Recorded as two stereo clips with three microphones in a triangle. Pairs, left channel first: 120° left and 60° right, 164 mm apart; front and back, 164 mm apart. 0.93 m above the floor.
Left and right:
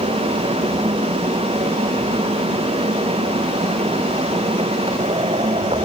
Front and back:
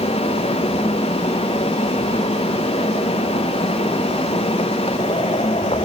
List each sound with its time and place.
Only background noise.